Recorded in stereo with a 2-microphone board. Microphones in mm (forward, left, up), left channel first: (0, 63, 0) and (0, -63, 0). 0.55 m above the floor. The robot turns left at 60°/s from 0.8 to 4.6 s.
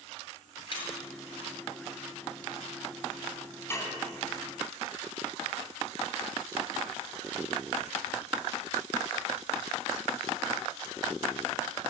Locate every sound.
0.7 s breaking glass: 40° left (ahead or behind), 6.5 m; by 0.9 s 35° left (ahead or behind), 6.5 m
3.7 s dishes clattering: 20° left (ahead or behind), 3.5 m; by 4.0 s 35° left (ahead or behind), 3.5 m